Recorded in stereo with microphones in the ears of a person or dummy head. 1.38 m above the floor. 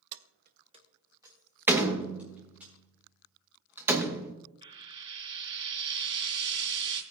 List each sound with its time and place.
0.1 s keys jangling: 60° right (ahead or behind), 0.5 m; by 2.7 s 5° right (ahead or behind), 4 m
1.7 s a door slam: 5° right (ahead or behind), 0.9 m
4.6 s frying: 30° right (ahead or behind), 2.5 m